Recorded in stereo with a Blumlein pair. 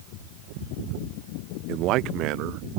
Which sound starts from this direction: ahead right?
A man speaking, at 1.7 s.